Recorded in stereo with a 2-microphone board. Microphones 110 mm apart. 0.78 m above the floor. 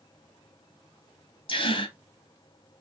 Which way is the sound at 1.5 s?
50° left (ahead or behind).